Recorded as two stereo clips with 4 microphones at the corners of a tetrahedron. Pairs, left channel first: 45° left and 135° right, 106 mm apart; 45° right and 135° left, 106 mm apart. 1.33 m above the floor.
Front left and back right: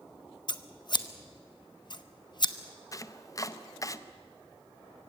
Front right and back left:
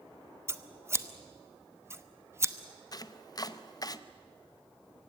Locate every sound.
0.5 s scissors: 75° left, 1.0 m
2.9 s chopping: straight ahead, 0.7 m